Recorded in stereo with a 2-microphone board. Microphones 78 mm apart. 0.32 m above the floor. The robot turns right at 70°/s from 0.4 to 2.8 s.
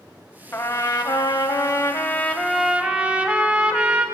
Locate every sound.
0.5 s a trumpet: 40° left, 0.5 m; by 4.0 s 160° right, 0.5 m